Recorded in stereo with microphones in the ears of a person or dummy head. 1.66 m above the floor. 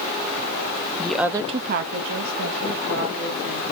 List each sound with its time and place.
1.0 s a woman speaking: 10° left (ahead or behind), 0.5 m; by 3.6 s 75° right (ahead or behind), 1.9 m